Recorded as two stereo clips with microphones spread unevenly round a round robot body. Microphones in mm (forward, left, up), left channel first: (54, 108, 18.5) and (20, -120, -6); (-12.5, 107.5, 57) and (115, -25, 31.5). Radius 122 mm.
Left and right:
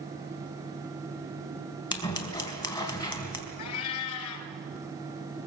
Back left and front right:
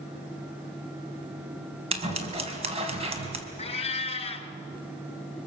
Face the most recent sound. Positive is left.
turn(degrees=80)